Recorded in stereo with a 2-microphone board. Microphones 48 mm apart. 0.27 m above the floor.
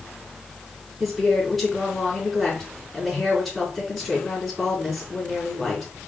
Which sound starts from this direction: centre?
A woman speaking, at 1.0 s.